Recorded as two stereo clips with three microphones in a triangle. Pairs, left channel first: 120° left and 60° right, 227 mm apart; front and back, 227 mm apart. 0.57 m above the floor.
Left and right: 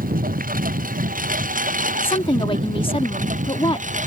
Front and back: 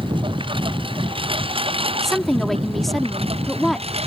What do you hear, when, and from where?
0.0 s a lawn mower: 110° right; by 4.1 s 115° right
2.0 s a woman speaking: 90° left